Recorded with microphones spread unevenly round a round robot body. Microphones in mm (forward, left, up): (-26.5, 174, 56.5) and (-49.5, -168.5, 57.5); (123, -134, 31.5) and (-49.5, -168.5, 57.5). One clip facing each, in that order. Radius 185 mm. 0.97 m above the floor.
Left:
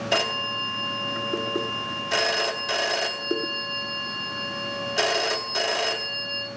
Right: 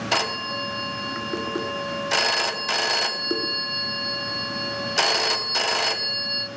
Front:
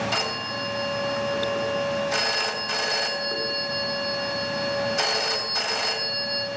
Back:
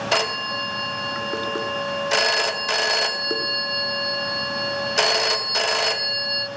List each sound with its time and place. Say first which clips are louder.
0.1 s a phone ringing: left 1 dB, back 5 dB; 165° right, 1.0 m